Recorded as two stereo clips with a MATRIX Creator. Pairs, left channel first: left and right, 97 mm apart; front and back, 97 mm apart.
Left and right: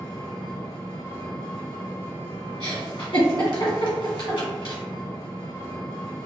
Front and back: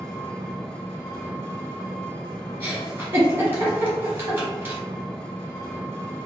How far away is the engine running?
About 1.8 m.